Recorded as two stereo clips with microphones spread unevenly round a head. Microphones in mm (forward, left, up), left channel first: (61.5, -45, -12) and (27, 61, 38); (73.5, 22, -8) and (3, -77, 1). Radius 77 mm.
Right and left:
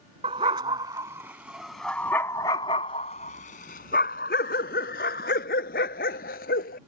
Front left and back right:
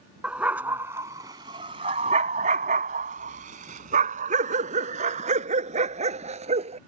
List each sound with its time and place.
0.2 s a dog barking: 150° left; by 6.8 s 95° right